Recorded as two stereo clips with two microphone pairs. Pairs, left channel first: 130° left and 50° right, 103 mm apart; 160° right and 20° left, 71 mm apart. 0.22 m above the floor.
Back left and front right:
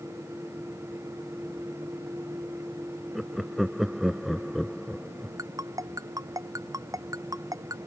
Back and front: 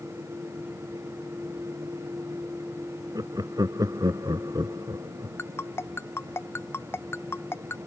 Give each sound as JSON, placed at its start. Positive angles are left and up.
{"t": 3.1, "sound": "laughter", "azimuth_deg": 35}
{"t": 5.4, "sound": "a ringtone", "azimuth_deg": -105}